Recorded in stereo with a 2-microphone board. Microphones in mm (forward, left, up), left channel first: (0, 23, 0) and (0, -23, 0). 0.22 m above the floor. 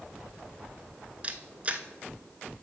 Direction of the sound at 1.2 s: 30° right (ahead or behind).